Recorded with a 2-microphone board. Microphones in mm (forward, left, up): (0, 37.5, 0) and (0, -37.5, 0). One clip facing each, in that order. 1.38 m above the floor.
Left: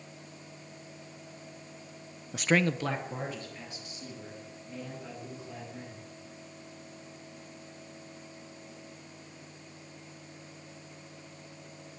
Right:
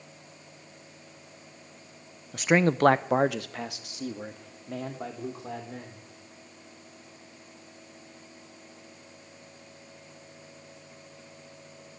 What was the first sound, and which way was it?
A man speaking, 10° left (ahead or behind).